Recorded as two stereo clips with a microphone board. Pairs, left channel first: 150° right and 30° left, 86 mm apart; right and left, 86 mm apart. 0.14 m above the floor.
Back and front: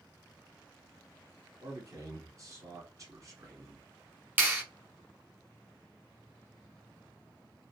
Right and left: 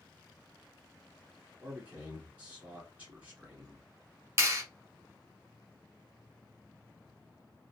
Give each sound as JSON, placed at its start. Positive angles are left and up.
{"t": 1.6, "sound": "a man speaking", "azimuth_deg": 25, "distance_m": 1.4}
{"t": 4.4, "sound": "a clap", "azimuth_deg": 80, "distance_m": 1.0}